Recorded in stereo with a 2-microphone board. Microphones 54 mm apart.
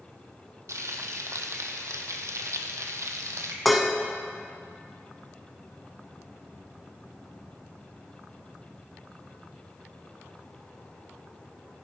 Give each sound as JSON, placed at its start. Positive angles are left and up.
{"t": 0.7, "sound": "frying", "side_deg": -80, "distance_m": 0.9}
{"t": 3.6, "sound": "dishes clattering", "side_deg": 0, "distance_m": 0.7}